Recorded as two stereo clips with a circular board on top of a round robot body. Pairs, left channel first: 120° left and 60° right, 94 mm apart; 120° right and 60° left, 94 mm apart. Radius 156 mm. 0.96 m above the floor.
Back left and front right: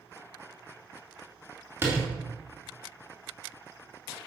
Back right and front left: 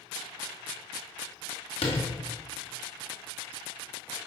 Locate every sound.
1.8 s a door slam: 130° right, 2.5 m